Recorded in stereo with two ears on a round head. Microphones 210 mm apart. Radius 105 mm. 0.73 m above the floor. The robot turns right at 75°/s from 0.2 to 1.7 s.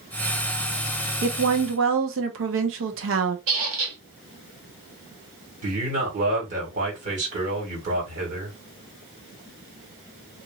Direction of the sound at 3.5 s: 60° right (ahead or behind).